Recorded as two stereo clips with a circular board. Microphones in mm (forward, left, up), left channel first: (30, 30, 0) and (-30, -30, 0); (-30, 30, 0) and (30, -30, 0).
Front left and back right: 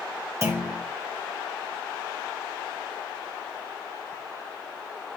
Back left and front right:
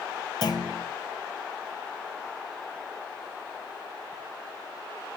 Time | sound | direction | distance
0.4 | a clunk | 170° left | 1.0 m